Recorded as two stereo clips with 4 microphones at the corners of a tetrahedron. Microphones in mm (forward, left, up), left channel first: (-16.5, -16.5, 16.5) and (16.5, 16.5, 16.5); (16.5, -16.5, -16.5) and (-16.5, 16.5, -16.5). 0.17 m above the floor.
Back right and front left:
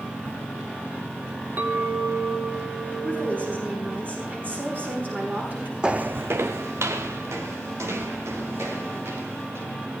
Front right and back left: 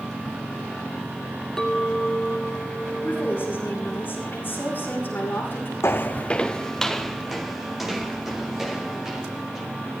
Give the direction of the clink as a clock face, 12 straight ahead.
11 o'clock.